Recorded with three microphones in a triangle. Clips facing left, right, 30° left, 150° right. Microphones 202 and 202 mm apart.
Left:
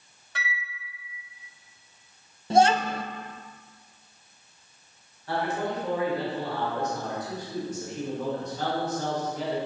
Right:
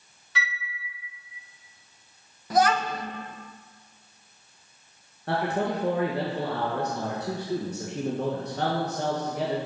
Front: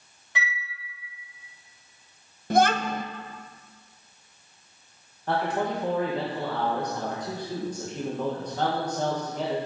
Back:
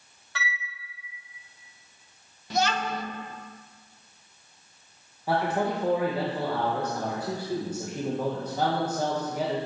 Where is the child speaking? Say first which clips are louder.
Left 2 dB, front 5 dB; 35° left, 0.6 m.